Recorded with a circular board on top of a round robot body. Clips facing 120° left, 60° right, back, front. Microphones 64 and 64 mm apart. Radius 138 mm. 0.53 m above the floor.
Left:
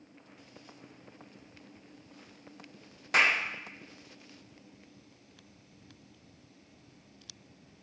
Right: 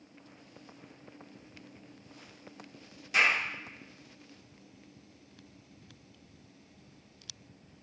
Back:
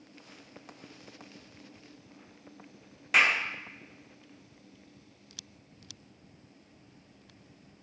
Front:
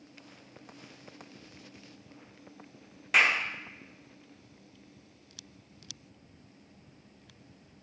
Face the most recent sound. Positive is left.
turn(degrees=90)